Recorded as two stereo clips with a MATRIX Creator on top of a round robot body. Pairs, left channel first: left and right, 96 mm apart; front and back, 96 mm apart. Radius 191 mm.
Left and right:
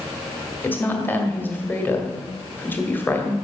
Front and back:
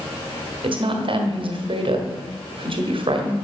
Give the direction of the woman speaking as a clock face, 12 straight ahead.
7 o'clock.